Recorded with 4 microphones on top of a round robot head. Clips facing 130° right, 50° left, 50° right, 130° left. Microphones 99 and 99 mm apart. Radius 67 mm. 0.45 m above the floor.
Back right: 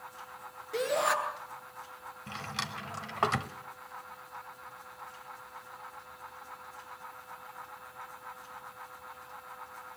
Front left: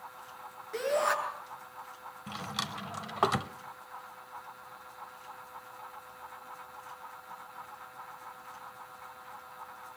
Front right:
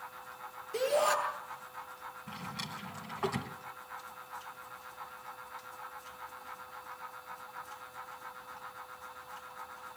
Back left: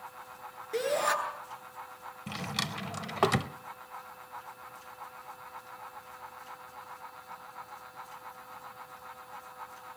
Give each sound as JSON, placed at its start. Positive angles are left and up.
{"t": 0.7, "sound": "a shout", "azimuth_deg": 145, "distance_m": 8.5}
{"t": 2.3, "sound": "a drawer", "azimuth_deg": 125, "distance_m": 0.8}